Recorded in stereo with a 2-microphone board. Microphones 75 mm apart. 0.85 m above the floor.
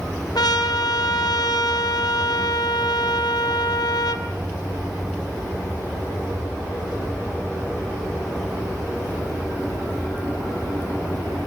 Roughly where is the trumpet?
Left.